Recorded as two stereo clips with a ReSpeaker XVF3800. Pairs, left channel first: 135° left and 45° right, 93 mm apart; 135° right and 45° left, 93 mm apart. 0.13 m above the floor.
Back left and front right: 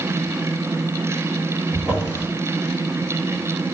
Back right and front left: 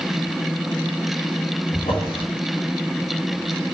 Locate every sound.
1.7 s a drawer: 125° right, 2 m